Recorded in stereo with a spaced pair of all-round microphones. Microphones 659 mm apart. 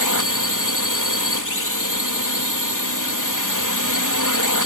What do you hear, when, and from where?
0.0 s a drone: 30° left (ahead or behind)